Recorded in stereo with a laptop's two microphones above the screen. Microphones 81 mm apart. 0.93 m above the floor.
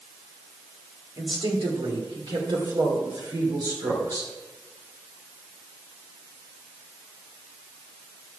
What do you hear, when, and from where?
1.2 s a woman speaking: 80° right, 2.5 m; by 4.3 s 45° right (ahead or behind), 3 m